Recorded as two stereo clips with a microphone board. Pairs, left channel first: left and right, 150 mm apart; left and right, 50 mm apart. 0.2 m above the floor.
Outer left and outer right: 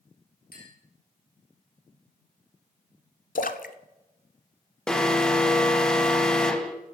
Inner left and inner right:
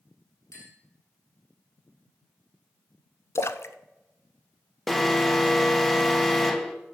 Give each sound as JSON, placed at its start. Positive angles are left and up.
{"t": 0.5, "sound": "a clink", "side_deg": 80, "distance_m": 4.0}
{"t": 3.4, "sound": "a splash", "side_deg": 65, "distance_m": 0.6}
{"t": 4.9, "sound": "an alarm", "side_deg": 5, "distance_m": 1.0}